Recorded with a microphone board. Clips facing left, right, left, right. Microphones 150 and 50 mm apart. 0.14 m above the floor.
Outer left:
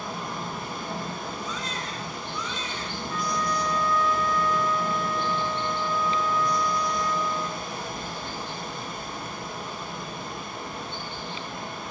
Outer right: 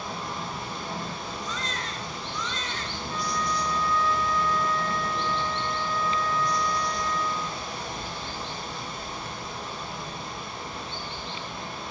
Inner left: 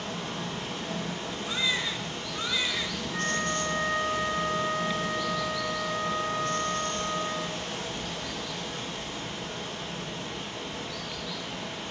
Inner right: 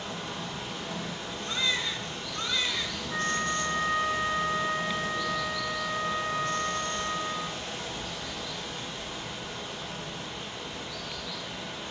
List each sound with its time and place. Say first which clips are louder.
0.0 s running water: outer left 1 dB, inner left 2 dB; 55° left (ahead or behind), 2.5 m
1.4 s a baby crying: outer left 1 dB, even; 10° left (ahead or behind), 1.1 m
3.1 s a flute: outer left 1 dB, inner right 1 dB; 35° right (ahead or behind), 1.3 m